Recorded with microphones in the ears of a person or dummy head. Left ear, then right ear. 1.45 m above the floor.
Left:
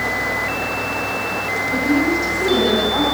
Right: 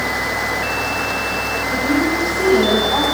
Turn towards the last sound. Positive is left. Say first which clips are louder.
# even
turn(degrees=-25)  # may be behind; listen again after turning